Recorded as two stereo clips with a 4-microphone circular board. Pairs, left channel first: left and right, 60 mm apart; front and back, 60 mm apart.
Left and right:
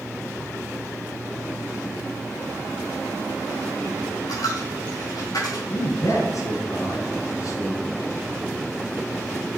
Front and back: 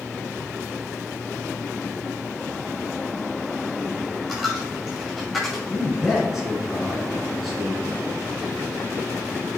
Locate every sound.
4.3 s a dropped coin: 95° left, 4 m
5.7 s a man speaking: 95° left, 2.5 m